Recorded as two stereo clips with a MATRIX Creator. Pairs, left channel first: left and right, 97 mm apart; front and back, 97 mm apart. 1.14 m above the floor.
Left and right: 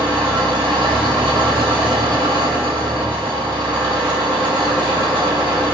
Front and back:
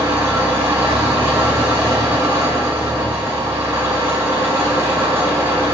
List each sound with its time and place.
0.0 s an engine running: 120° right, 1.8 m